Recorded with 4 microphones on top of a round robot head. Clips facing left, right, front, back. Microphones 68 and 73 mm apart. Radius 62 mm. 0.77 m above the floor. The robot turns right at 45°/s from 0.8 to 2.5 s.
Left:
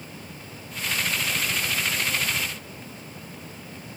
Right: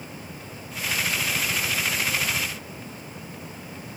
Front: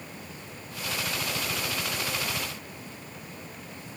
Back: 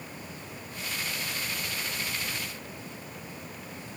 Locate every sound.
Only background noise.